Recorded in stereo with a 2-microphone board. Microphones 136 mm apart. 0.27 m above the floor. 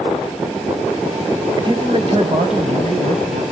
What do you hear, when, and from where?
1.6 s a man speaking: 30° right (ahead or behind), 1.6 m; by 3.4 s 60° right (ahead or behind), 2.5 m